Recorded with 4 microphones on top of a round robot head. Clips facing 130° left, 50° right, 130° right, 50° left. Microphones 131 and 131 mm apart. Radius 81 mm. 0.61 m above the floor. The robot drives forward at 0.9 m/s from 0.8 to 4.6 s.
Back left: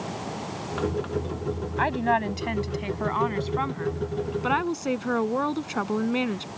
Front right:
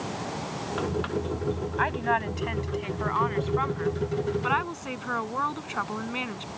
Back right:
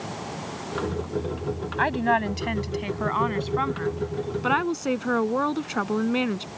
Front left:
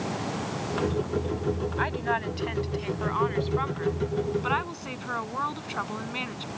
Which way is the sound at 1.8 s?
170° right.